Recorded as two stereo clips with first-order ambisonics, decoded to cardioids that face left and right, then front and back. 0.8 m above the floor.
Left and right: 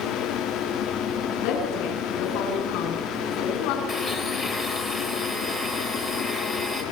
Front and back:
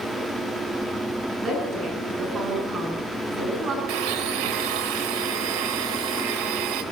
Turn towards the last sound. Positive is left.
turn(degrees=175)